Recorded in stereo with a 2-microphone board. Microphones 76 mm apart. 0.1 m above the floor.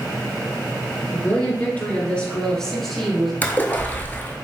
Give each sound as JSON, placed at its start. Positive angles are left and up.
{"t": 1.1, "sound": "a woman speaking", "side_deg": 30, "distance_m": 1.5}
{"t": 3.4, "sound": "a splash", "side_deg": 25, "distance_m": 0.6}